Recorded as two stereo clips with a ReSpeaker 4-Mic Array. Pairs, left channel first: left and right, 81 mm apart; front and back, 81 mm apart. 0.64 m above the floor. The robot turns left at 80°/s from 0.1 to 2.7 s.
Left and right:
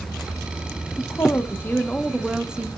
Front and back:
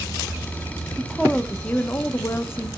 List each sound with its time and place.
1.0 s a woman speaking: 100° left, 0.8 m; by 2.7 s 35° right, 0.8 m